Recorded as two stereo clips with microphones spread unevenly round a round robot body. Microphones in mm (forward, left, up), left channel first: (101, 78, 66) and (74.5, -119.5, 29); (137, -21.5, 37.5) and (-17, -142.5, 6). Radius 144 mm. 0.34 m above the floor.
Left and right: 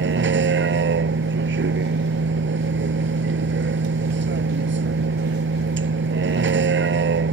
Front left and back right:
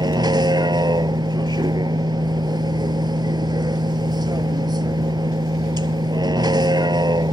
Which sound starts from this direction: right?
A vehicle, at 0.0 s.